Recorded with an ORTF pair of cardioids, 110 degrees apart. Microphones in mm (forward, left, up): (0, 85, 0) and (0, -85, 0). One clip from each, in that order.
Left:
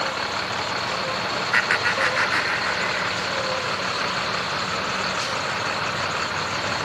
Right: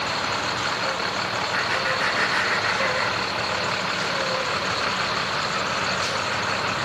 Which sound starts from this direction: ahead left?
Laughter, at 1.5 s.